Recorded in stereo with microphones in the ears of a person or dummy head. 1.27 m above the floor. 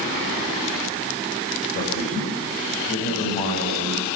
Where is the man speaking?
50° left (ahead or behind), 8 m.